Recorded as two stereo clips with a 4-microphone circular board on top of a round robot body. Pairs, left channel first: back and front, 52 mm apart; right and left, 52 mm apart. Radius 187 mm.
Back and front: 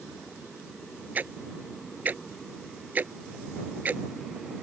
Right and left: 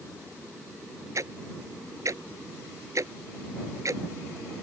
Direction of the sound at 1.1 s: 60° left.